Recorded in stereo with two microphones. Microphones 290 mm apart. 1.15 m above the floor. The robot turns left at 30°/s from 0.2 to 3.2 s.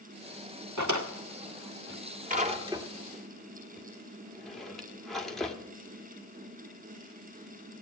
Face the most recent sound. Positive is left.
turn(degrees=0)  # may be behind; listen again after turning